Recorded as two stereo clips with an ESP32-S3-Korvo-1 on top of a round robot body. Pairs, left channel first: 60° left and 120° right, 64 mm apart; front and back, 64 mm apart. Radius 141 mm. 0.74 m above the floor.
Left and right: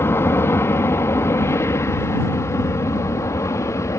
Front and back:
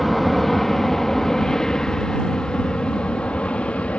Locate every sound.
0.0 s an aircraft: 90° left; by 4.0 s 65° left